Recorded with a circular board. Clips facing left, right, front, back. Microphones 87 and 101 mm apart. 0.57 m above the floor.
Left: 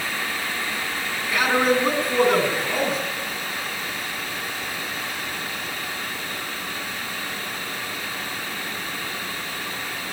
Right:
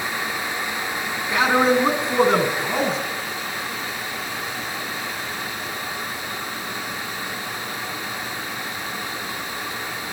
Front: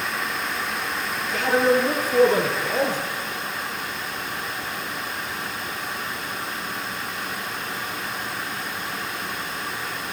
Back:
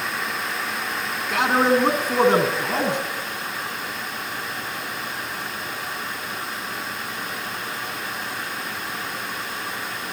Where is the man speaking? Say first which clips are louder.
Right 2 dB, back 1 dB; 160° right, 7 m.